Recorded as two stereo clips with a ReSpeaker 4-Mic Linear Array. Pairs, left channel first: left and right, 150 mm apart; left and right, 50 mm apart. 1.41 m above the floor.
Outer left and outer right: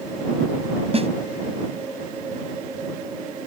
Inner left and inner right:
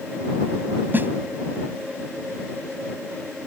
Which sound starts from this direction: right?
A snare drum, at 0.9 s.